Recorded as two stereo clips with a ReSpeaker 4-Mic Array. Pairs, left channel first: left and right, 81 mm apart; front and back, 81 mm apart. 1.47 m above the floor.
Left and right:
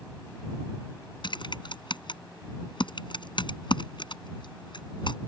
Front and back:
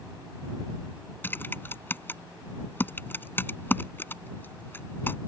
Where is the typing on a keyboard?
65° left.